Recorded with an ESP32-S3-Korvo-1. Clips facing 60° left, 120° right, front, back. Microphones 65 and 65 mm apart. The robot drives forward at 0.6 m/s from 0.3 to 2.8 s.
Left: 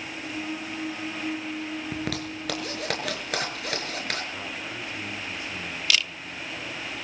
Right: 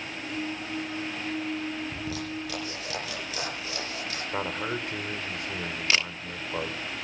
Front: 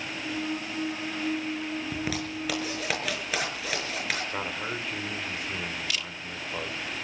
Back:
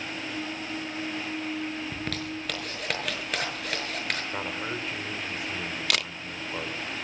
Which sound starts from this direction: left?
A zipper, at 1.9 s.